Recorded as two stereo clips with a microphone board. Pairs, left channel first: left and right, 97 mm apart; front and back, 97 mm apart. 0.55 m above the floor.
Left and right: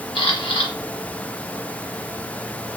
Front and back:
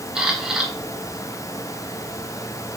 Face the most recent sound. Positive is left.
turn(degrees=100)